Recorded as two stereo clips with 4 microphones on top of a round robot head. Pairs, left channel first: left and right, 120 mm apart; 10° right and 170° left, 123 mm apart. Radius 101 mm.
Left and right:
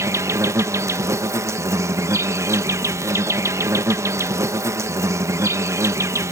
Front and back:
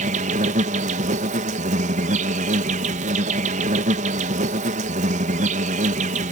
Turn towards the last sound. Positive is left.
turn(degrees=-155)